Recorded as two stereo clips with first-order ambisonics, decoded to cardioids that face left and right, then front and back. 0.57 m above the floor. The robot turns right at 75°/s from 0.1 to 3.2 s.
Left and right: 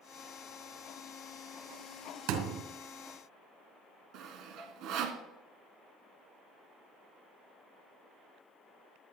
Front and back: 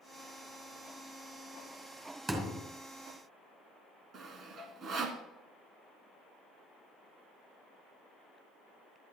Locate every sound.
2.3 s a thud: 105° right, 2.0 m; by 2.6 s 80° right, 2.0 m
4.1 s sawing: 125° right, 1.4 m